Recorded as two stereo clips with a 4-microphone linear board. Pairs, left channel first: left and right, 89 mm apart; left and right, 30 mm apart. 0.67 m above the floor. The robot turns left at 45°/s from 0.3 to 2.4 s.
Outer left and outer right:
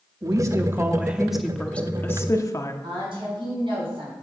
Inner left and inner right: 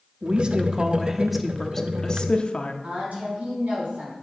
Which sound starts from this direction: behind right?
A woman speaking, at 0.2 s.